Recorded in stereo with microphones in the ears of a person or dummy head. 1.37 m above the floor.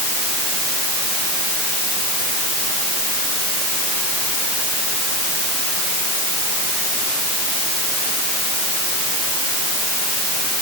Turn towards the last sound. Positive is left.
No sound to turn to.